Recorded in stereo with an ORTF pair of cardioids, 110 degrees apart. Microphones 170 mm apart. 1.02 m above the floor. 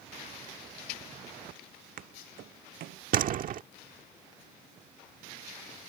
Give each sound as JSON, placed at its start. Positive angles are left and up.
{"t": 1.5, "sound": "footsteps", "azimuth_deg": -50}
{"t": 3.1, "sound": "a door slam", "azimuth_deg": -55}